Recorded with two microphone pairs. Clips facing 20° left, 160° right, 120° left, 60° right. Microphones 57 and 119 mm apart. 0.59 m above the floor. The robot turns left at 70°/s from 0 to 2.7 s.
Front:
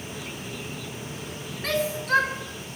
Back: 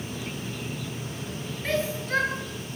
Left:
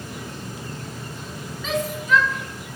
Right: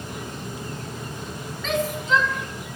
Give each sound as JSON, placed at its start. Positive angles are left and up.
{"t": 1.6, "sound": "a shout", "azimuth_deg": 40, "distance_m": 6.0}